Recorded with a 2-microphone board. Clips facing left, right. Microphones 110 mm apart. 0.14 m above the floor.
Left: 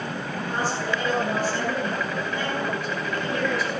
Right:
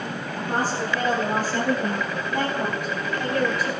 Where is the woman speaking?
40° right (ahead or behind), 8.5 m; by 3.7 s 55° right (ahead or behind), 10 m.